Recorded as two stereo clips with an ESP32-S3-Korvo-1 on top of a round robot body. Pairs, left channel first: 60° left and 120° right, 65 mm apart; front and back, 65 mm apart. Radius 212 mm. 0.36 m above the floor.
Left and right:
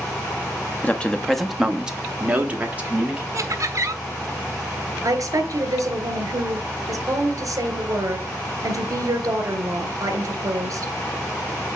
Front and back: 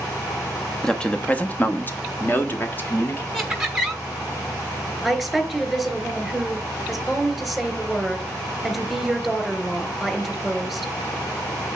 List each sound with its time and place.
0.8 s a man speaking: 70° left, 1.3 m; by 3.2 s 55° right, 3 m
3.3 s laughter: 100° right, 1.1 m
5.0 s a woman speaking: 90° right, 3 m